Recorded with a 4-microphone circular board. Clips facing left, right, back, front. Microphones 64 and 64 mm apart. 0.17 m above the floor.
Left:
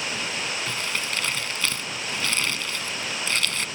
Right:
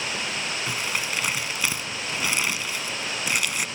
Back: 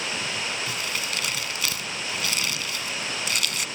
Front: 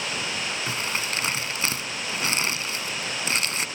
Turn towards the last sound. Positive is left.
turn(degrees=-25)